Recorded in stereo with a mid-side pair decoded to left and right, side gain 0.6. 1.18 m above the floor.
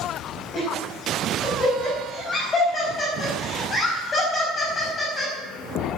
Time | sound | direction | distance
0.5 | laughter | 30° left | 6 m